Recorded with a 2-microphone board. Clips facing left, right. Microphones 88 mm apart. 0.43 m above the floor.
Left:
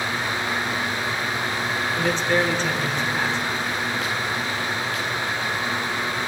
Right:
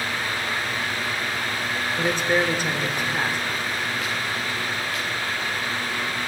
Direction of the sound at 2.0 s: 10° right (ahead or behind).